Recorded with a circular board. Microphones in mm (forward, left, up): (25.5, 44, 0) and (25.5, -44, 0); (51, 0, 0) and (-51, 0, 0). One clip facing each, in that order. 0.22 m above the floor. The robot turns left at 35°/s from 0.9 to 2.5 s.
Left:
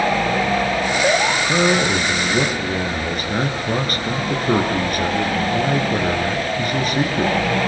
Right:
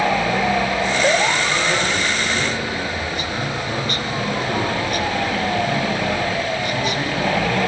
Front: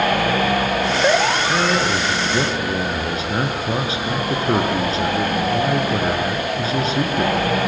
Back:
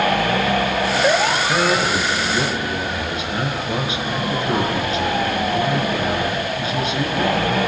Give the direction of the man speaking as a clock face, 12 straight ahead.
9 o'clock.